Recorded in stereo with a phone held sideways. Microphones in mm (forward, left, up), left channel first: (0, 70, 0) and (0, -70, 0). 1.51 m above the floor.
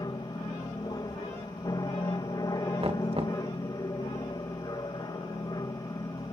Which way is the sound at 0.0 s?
30° left (ahead or behind).